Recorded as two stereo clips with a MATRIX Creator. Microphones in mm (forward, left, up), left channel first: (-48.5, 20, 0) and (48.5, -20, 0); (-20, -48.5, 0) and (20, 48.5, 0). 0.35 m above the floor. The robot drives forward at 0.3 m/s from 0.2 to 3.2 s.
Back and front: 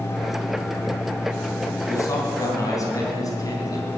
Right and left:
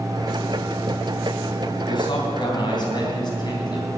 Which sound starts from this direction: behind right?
A man speaking, at 1.9 s.